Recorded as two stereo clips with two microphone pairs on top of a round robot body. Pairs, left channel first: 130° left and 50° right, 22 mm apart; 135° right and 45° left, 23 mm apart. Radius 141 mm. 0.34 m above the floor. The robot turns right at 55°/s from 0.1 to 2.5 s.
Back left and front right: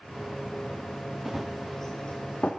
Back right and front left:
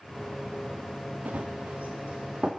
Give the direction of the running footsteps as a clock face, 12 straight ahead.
11 o'clock.